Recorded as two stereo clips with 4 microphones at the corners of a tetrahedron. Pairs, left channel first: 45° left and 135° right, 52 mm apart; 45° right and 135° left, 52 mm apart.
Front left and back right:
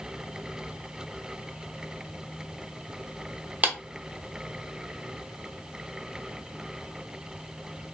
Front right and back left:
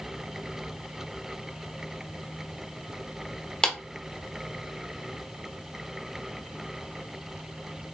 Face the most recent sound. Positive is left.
turn(degrees=-105)